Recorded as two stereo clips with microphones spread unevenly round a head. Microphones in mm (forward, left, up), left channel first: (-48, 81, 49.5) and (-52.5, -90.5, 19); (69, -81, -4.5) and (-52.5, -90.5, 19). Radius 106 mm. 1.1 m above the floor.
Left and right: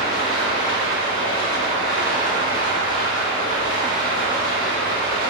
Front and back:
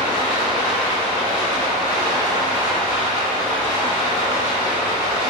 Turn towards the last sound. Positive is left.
turn(degrees=25)